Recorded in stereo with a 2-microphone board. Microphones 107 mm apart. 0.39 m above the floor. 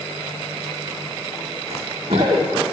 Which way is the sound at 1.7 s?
75° right (ahead or behind).